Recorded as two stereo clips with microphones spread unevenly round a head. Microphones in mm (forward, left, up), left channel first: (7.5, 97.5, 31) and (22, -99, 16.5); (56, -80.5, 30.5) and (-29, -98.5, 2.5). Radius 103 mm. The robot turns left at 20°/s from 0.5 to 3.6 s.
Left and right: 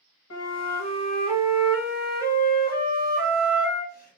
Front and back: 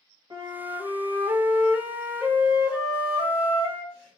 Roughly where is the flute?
Behind left.